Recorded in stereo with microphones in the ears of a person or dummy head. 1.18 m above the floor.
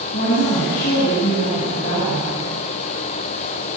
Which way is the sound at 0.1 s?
45° left (ahead or behind).